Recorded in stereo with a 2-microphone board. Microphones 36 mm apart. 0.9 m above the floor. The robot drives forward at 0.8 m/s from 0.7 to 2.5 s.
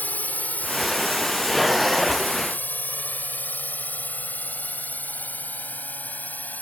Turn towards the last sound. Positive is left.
turn(degrees=50)  # may be behind; listen again after turning